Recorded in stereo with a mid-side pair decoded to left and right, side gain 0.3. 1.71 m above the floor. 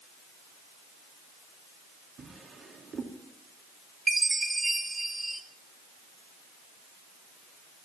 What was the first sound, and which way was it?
A drawer, 70° right.